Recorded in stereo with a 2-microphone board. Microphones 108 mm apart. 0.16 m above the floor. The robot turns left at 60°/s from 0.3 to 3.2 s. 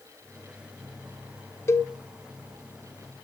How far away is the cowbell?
About 0.8 m.